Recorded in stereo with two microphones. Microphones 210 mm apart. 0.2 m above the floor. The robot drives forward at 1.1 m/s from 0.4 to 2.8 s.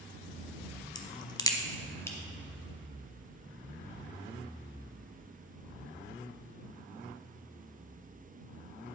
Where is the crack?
20° left (ahead or behind), 0.8 m; by 2.2 s 10° left (ahead or behind), 1.3 m.